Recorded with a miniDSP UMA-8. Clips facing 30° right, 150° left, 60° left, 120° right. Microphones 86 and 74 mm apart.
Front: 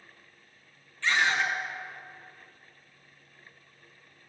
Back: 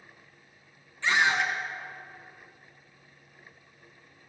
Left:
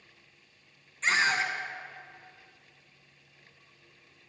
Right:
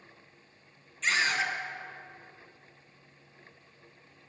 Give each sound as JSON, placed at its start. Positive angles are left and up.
{"t": 1.0, "sound": "a scream", "azimuth_deg": 90, "distance_m": 1.7}